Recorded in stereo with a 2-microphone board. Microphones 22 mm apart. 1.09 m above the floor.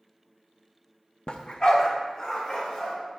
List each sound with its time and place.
1.3 s a dog barking: 40° left (ahead or behind), 0.6 m; by 2.9 s 35° left (ahead or behind), 2.5 m